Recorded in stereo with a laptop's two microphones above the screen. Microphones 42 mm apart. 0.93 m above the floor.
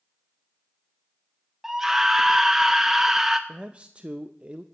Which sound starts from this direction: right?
A man speaking, at 3.5 s.